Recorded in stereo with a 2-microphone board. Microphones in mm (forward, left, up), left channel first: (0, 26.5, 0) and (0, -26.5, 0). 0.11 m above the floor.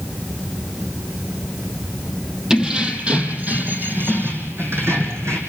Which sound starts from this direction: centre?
Keys jangling, at 2.5 s.